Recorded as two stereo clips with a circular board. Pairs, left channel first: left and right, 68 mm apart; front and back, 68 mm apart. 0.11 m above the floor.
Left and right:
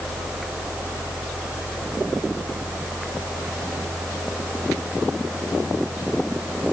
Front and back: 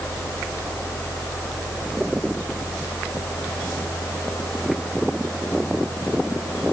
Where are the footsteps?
I don't hear footsteps.